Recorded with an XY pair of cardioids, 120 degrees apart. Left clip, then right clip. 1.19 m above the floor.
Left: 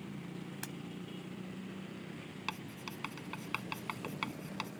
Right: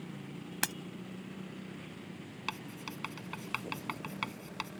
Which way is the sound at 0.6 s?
70° right.